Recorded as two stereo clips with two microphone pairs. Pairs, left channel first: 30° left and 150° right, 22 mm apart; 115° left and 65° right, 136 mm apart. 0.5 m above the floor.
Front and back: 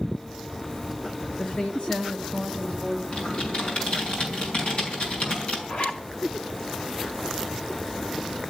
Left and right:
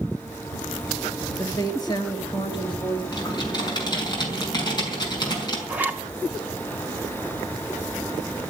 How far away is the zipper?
About 1.9 m.